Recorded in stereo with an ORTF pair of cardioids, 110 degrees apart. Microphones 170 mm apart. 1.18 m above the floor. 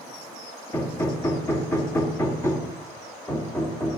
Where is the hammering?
15° left, 2.5 m.